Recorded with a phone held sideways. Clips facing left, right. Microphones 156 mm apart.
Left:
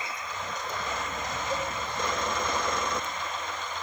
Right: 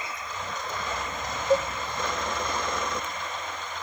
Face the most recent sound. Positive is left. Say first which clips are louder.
# right 11 dB
turn(degrees=-60)  # may be behind; listen again after turning